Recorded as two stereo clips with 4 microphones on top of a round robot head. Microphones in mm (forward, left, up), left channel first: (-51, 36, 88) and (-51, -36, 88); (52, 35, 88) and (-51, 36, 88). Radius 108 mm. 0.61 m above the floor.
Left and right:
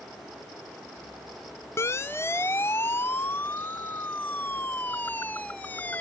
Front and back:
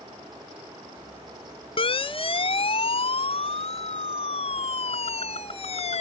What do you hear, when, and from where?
1.8 s a siren: 30° left; by 6.0 s 20° left